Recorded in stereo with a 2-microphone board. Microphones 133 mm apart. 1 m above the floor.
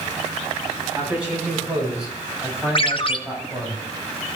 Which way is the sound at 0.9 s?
10° right (ahead or behind).